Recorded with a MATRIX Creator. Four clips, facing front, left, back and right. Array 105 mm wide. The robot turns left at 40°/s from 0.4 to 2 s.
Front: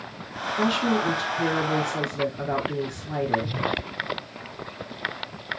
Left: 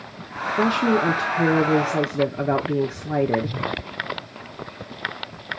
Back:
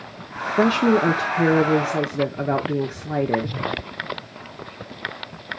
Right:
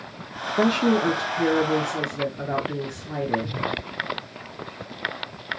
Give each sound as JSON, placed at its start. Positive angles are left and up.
{"t": 0.6, "sound": "a woman speaking", "azimuth_deg": -170, "distance_m": 0.8}